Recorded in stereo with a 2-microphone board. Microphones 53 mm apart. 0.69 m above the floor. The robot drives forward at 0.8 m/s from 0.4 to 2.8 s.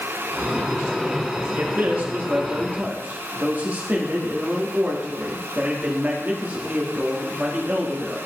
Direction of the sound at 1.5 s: 40° right (ahead or behind).